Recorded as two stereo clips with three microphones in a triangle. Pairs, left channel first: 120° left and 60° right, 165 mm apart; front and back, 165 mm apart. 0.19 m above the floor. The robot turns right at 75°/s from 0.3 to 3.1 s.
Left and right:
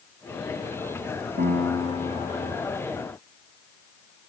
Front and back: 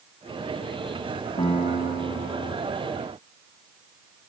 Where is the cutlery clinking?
No cutlery clinking in this recording.